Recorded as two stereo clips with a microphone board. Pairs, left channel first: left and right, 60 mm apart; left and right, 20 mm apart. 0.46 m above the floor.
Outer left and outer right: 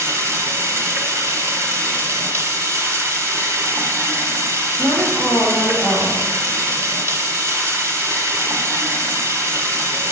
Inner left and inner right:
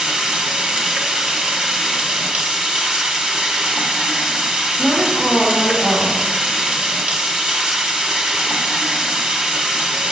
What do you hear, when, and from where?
0.0 s running water: 50° right (ahead or behind), 0.9 m
4.8 s a woman speaking: 50° right (ahead or behind), 1.0 m